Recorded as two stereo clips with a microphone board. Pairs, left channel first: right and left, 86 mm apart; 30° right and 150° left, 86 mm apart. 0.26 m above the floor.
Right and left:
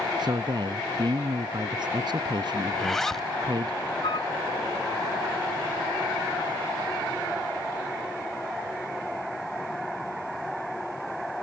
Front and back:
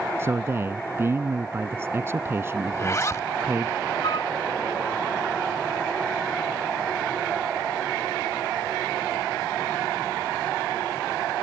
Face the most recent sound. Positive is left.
turn(degrees=-65)